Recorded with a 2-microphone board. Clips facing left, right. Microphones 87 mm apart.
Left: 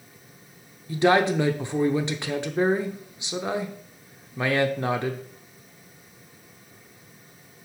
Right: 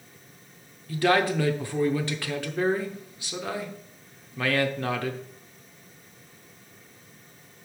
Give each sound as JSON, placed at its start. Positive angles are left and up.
{"t": 0.9, "sound": "a man speaking", "side_deg": 20, "distance_m": 0.7}